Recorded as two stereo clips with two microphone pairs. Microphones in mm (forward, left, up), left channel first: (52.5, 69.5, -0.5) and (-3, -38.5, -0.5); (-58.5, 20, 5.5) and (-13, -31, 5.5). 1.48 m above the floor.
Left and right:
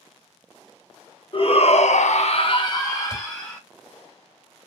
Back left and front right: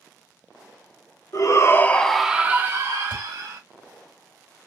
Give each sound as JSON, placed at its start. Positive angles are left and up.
{"t": 1.3, "sound": "a shout", "azimuth_deg": 105, "distance_m": 0.8}
{"t": 3.1, "sound": "a thud", "azimuth_deg": -110, "distance_m": 2.0}